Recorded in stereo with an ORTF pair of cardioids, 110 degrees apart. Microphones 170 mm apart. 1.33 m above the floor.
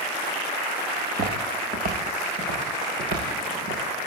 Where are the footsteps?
45° right, 8 m; by 3.8 s 70° right, 9 m.